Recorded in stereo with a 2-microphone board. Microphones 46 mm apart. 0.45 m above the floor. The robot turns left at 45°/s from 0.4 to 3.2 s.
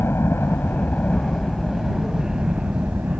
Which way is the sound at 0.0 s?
55° left (ahead or behind).